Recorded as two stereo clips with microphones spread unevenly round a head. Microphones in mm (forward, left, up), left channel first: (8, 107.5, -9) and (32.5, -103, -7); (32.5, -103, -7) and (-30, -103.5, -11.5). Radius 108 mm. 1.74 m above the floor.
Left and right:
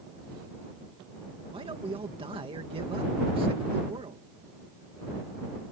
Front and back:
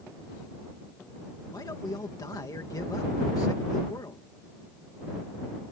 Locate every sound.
1.5 s a man speaking: 15° right